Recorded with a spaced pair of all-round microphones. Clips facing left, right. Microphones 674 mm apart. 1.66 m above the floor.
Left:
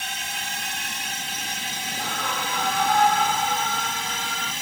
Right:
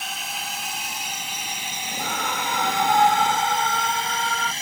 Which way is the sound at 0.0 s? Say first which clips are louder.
Right 1 dB; 45° left (ahead or behind).